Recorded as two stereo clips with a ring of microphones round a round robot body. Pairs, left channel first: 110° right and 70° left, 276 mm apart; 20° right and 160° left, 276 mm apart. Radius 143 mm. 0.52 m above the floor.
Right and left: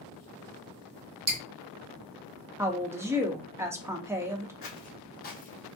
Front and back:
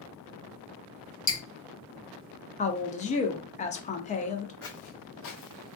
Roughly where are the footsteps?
Right.